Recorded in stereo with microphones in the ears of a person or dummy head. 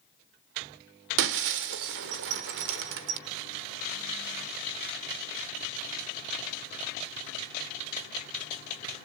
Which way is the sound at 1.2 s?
60° right (ahead or behind).